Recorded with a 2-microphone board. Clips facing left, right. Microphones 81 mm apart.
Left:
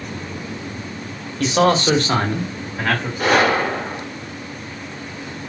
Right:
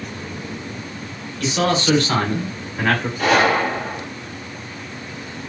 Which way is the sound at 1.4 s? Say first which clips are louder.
Left 4 dB; 50° left (ahead or behind).